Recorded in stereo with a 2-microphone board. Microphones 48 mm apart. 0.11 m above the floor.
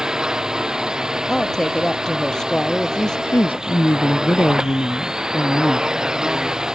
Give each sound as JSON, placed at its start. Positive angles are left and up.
{"t": 0.0, "sound": "a drone", "side_deg": -15}
{"t": 1.3, "sound": "a woman speaking", "side_deg": 15}
{"t": 3.3, "sound": "a woman speaking", "side_deg": 45}